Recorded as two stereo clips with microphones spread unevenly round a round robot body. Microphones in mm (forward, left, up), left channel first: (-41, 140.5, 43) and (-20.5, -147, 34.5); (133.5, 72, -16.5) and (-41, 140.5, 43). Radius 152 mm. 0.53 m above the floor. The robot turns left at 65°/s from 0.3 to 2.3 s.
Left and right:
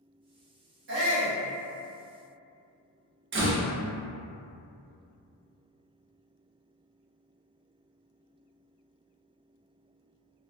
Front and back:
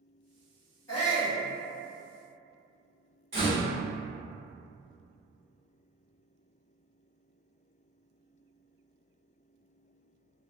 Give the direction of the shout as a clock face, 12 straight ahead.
2 o'clock.